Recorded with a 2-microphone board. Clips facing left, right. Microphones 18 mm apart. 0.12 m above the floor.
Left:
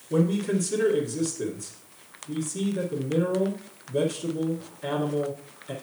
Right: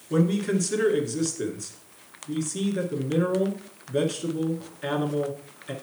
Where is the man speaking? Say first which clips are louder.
Right 1 dB; 30° right (ahead or behind), 1.4 m.